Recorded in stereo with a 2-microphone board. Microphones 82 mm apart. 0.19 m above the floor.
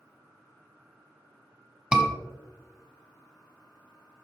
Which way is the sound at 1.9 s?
10° right (ahead or behind).